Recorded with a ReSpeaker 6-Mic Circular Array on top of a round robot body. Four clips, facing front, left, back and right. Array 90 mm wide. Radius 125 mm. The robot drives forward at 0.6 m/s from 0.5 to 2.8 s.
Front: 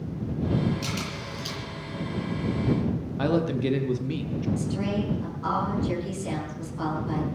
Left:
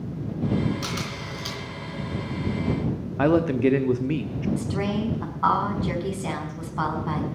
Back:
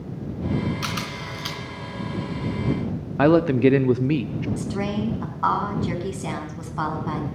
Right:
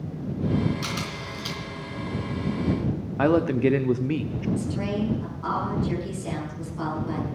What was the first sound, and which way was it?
A camera shutter, straight behind.